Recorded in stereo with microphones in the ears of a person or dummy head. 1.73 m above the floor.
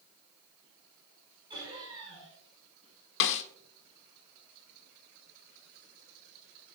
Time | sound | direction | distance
1.5 | laughter | 25° right (ahead or behind) | 6 m
3.2 | a snare drum | 70° left (ahead or behind) | 1.2 m